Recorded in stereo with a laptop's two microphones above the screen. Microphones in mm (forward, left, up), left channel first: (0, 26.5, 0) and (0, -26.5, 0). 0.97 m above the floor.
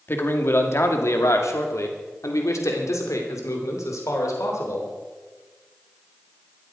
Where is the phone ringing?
No phone ringing in this recording.